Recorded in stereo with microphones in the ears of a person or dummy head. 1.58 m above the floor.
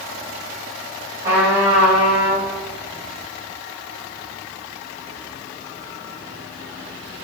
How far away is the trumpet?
About 1.3 m.